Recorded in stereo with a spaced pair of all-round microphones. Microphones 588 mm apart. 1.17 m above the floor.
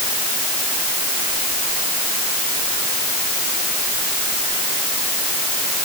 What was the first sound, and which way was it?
Only background noise.